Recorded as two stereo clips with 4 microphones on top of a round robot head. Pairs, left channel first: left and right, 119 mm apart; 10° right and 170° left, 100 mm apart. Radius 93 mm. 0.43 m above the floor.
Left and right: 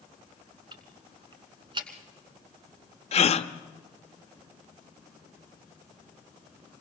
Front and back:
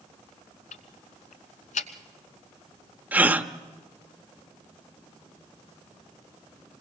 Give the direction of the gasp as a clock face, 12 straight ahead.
9 o'clock.